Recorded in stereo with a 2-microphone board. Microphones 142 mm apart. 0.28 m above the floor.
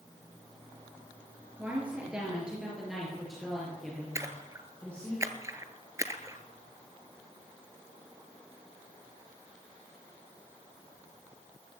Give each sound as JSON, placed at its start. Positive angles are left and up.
{"t": 1.6, "sound": "a woman speaking", "side_deg": -10, "distance_m": 6.0}
{"t": 4.2, "sound": "a splash", "side_deg": -20, "distance_m": 1.2}